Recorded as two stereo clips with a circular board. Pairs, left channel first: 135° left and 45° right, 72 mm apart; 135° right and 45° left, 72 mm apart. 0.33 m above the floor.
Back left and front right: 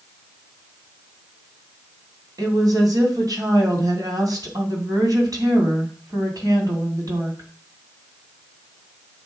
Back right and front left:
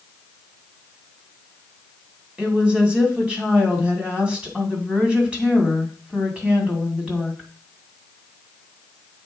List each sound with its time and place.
2.4 s a woman speaking: 30° right, 2.5 m